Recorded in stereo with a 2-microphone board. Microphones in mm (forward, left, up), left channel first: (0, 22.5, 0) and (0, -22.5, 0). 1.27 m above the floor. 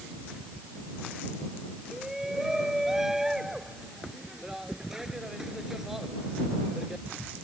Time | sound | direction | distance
1.9 | a shout | 10° right (ahead or behind) | ?